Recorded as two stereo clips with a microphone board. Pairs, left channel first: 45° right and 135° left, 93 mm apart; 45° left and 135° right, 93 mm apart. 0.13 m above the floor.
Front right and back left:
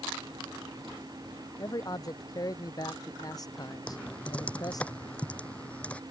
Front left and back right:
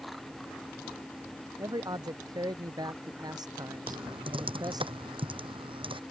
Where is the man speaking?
95° right.